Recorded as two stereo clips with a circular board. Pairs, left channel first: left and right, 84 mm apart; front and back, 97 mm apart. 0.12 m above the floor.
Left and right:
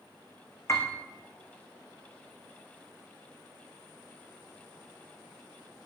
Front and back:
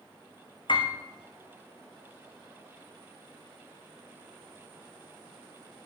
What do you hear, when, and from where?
0.7 s a piano: 35° left, 2.5 m